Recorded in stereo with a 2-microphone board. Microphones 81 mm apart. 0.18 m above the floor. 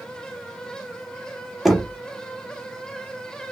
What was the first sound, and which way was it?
Knocking, centre (ahead or behind).